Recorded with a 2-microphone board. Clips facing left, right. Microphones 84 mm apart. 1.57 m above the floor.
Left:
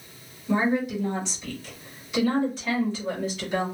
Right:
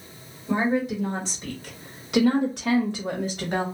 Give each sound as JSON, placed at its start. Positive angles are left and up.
{"t": 0.5, "sound": "a woman speaking", "side_deg": -30, "distance_m": 1.5}